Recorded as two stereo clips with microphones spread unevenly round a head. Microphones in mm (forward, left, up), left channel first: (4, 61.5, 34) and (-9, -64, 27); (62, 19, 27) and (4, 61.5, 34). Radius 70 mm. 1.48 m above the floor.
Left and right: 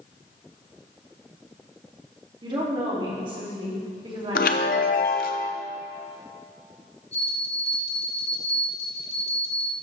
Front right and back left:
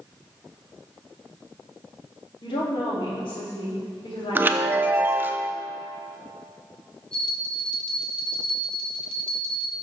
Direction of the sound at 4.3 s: 90° left.